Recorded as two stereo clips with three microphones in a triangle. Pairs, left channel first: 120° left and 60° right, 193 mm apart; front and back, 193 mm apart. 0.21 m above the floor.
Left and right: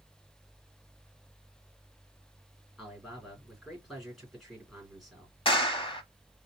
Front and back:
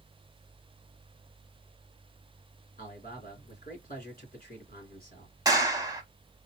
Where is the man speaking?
30° left, 3 m.